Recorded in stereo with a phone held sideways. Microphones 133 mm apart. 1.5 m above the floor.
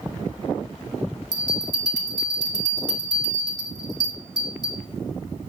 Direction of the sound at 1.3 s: 30° left (ahead or behind).